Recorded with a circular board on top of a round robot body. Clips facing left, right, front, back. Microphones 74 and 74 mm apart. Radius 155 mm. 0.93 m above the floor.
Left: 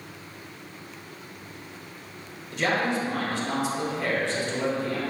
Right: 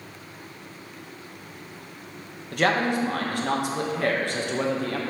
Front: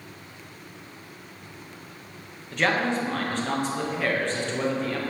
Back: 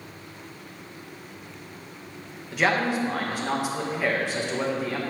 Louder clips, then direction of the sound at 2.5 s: Right 3 dB, back 1 dB; 100° right.